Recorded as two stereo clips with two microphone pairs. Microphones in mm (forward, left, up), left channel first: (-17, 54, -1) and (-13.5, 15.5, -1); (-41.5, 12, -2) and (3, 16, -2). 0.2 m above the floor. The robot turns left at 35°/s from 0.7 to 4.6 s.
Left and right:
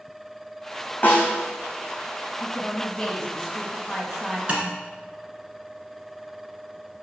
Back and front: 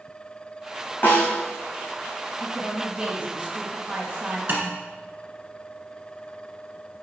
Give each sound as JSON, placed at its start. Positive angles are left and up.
{"t": 1.0, "sound": "a snare drum", "azimuth_deg": 135, "distance_m": 3.0}
{"t": 2.4, "sound": "a woman speaking", "azimuth_deg": 65, "distance_m": 1.5}
{"t": 4.5, "sound": "tapping", "azimuth_deg": -30, "distance_m": 1.5}